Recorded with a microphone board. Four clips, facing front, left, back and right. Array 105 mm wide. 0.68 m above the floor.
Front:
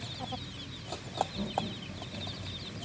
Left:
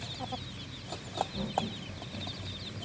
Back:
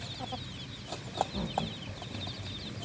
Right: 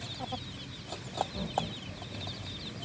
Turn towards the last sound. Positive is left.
turn(degrees=-170)